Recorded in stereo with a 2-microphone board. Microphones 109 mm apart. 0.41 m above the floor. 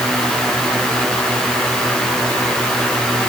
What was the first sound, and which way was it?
Only background noise.